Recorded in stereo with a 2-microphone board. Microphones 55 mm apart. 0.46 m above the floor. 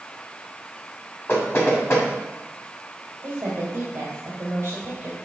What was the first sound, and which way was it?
Knocking, 45° left (ahead or behind).